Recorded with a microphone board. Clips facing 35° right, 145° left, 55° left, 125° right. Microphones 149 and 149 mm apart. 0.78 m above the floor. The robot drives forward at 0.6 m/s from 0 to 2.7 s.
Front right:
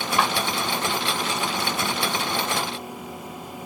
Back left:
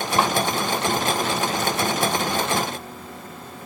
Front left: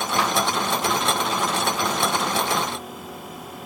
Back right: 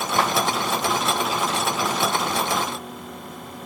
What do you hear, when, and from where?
0.2 s a clap: 160° right, 2.5 m